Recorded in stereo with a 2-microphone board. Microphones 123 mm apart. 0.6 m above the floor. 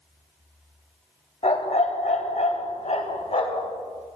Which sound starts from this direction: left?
A dog barking, at 1.4 s.